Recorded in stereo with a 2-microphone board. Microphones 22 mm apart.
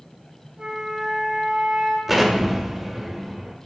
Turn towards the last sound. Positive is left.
turn(degrees=-5)  # may be behind; listen again after turning